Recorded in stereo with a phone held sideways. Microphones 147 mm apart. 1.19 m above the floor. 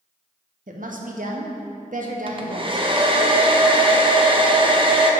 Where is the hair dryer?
35° right (ahead or behind), 0.7 m.